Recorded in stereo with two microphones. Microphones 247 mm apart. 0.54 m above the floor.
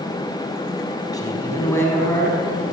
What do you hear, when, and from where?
1.1 s a man speaking: 15° left (ahead or behind), 5 m; by 2.6 s 5° left (ahead or behind), 6 m